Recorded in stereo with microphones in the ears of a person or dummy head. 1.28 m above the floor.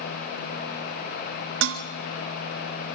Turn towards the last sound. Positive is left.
turn(degrees=-80)